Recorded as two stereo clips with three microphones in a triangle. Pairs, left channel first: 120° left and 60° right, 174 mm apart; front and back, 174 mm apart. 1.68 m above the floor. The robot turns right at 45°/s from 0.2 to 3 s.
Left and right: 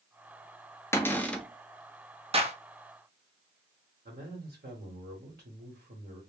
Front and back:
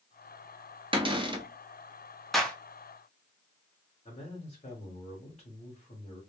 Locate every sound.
0.9 s a cupboard door: straight behind, 0.6 m; by 1.4 s 155° right, 0.6 m
2.3 s a clap: 90° right, 0.6 m; by 2.6 s 80° right, 0.6 m
4.0 s a man speaking: 45° right, 1.1 m